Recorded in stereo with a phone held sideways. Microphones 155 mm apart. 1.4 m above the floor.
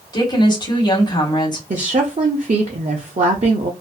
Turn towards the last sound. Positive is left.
turn(degrees=-50)  # may be behind; listen again after turning